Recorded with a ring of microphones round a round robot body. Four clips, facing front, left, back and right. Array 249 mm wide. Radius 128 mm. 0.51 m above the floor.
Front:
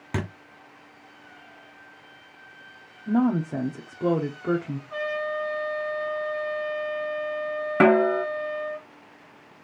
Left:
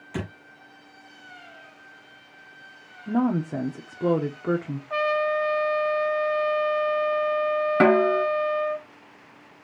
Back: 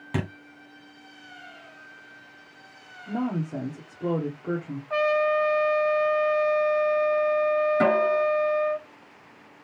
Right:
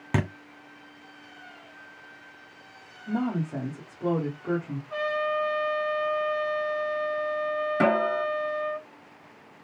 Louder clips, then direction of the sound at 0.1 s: Right 5 dB, back 1 dB; 80° right.